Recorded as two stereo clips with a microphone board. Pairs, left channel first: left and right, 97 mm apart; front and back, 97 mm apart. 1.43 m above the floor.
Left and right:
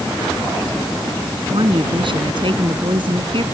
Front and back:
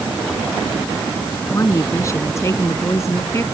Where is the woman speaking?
60° right.